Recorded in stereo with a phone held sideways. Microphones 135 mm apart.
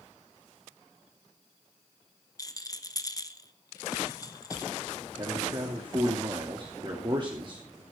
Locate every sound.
2.4 s a rattle: 25° left (ahead or behind), 1.2 m
5.2 s a man speaking: 35° right (ahead or behind), 3 m